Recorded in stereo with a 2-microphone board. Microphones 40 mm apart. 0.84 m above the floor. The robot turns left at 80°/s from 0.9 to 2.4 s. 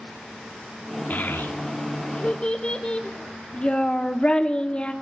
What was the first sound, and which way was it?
A child speaking, 50° left (ahead or behind).